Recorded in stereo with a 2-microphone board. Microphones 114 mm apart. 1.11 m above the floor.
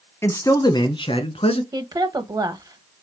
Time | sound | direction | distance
0.2 | a man speaking | 20° left (ahead or behind) | 0.8 m
1.7 | a woman speaking | 35° right (ahead or behind) | 0.8 m